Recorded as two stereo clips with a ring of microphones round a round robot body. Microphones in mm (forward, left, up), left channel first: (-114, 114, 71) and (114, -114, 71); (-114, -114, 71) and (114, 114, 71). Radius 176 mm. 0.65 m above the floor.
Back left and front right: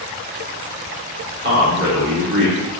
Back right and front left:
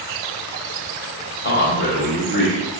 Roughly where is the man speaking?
Right.